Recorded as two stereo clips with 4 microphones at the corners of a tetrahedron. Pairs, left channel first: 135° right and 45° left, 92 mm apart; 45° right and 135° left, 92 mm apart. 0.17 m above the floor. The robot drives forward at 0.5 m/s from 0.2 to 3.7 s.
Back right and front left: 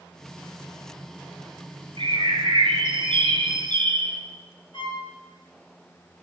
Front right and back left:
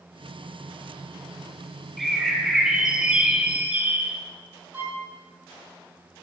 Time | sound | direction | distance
2.0 | a bird | 45° left | 2.5 m
4.7 | a violin | 160° right | 3.5 m